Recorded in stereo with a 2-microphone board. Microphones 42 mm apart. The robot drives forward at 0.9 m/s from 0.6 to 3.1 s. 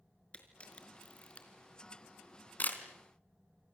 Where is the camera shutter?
25° left (ahead or behind), 5 m; by 2.8 s 45° left (ahead or behind), 3.5 m.